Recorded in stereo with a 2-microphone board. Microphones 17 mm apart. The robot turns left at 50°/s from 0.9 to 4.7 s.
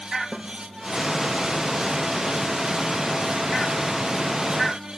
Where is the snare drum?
5° right (ahead or behind), 2 m.